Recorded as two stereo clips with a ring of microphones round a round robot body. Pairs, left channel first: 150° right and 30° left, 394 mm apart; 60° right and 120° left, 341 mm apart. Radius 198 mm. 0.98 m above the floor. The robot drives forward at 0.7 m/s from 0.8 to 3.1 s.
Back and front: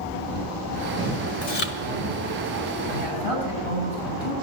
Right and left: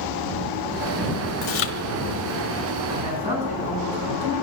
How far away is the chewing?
About 1.2 m.